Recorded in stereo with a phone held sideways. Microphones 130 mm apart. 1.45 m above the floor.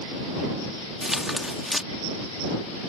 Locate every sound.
1.0 s tearing paper: centre (ahead or behind)